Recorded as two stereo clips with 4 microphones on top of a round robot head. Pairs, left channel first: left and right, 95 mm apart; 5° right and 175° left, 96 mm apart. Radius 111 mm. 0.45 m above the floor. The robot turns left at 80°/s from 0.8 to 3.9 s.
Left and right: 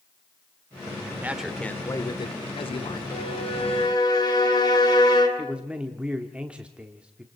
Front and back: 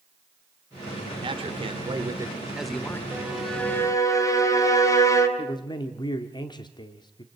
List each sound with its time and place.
1.2 s a man speaking: 160° right, 1.5 m; by 3.0 s 60° left, 1.5 m
3.1 s a violin: 110° left, 3 m; by 5.3 s 50° left, 3 m
5.4 s a man speaking: 15° right, 1.3 m